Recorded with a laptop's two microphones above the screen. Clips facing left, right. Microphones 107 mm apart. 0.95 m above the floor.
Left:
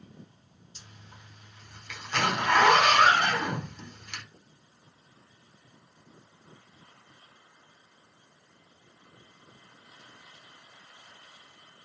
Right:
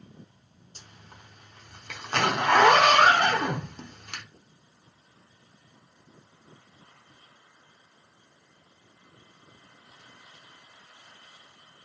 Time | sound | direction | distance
0.8 | a zipper | 50° right (ahead or behind) | 0.9 m